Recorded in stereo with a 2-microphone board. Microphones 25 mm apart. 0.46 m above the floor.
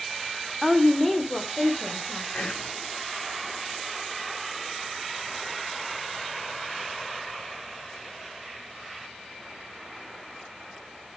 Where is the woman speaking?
10° left (ahead or behind), 1.2 m; by 2.2 s 25° left (ahead or behind), 2.5 m.